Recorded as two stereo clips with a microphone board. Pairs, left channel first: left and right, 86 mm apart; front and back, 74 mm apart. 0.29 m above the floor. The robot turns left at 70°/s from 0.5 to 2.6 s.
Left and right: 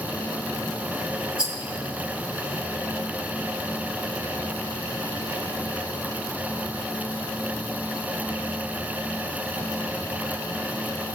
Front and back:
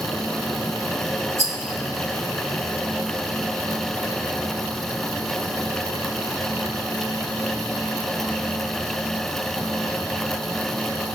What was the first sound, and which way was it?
A rattle, 160° right.